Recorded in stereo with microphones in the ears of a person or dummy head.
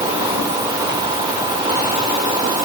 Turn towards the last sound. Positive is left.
No sound to turn to.